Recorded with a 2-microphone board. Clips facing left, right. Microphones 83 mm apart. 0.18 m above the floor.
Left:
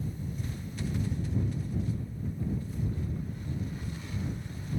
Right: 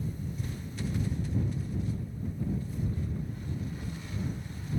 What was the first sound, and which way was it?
Only background noise.